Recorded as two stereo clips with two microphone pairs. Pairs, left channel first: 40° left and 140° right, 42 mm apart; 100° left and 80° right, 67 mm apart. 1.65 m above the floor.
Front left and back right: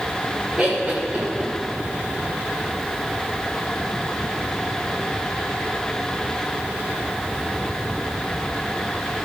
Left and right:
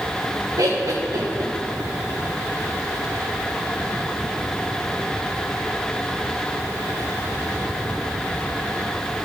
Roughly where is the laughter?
Ahead right.